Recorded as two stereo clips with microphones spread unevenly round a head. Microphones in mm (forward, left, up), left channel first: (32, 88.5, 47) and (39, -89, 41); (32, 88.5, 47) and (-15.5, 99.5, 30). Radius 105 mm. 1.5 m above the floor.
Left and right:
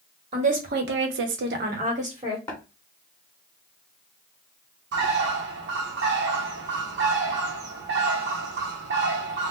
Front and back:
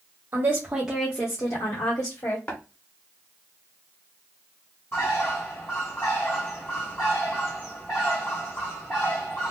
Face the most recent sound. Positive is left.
turn(degrees=-70)